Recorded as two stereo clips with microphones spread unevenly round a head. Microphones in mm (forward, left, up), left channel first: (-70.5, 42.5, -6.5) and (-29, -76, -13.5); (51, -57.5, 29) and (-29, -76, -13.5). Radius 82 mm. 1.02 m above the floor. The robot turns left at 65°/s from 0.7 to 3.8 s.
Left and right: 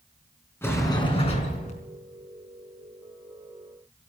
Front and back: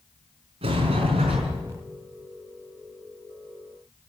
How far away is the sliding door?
About 4.5 m.